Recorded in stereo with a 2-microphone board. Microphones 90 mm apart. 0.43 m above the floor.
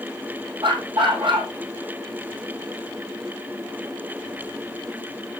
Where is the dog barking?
65° right (ahead or behind), 3.5 m.